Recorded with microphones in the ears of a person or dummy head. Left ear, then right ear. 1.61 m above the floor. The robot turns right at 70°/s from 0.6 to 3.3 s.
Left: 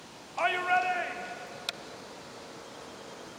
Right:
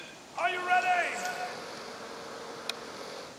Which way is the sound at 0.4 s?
Straight behind.